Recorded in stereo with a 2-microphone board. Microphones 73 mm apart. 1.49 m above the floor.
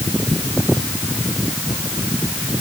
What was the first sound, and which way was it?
Only background noise.